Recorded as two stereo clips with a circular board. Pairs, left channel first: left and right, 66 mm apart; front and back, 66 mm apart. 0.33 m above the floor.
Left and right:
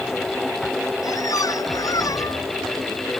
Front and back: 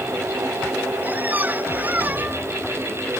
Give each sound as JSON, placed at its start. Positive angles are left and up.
{"t": 1.0, "sound": "a squeak", "azimuth_deg": 115}